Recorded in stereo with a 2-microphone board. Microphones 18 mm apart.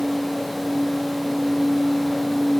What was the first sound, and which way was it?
Only background noise.